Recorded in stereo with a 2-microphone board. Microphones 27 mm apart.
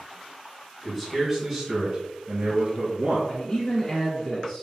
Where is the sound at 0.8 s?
10° left (ahead or behind), 1.5 m; by 3.2 s 50° right (ahead or behind), 2 m.